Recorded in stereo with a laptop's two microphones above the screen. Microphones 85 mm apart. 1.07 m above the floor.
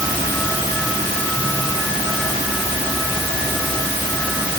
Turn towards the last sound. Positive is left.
No sound to turn to.